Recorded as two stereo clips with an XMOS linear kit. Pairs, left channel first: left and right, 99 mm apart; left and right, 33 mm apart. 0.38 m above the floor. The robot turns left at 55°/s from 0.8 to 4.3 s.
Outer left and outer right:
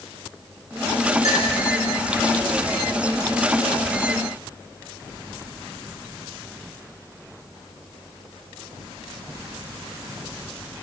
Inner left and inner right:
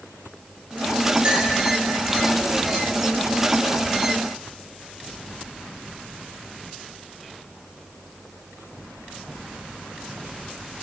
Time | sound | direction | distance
1.2 | a clink | 40° right (ahead or behind) | 4.5 m